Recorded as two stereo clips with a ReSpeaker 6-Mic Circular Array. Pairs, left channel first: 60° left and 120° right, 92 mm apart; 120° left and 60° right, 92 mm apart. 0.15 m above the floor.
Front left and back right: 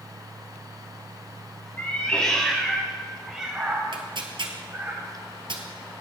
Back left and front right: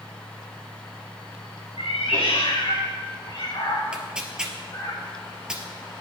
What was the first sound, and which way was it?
A cat meowing, 130° left.